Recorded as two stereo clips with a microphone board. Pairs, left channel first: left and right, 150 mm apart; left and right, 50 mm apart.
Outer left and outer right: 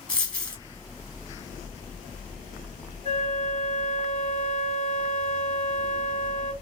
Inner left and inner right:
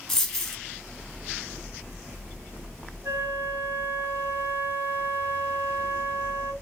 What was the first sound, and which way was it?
A dropped coin, 10° left (ahead or behind).